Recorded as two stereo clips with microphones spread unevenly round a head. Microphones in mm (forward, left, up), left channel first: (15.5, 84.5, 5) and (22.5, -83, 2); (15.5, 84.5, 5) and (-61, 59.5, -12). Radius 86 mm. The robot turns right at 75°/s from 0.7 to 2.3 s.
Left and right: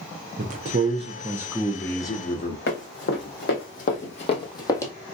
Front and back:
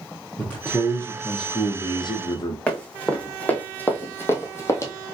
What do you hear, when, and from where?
0.4 s a man speaking: 70° right, 0.7 m; by 2.6 s 50° left, 0.7 m
2.7 s running footsteps: 85° left, 2.5 m; by 4.9 s 20° left, 1.4 m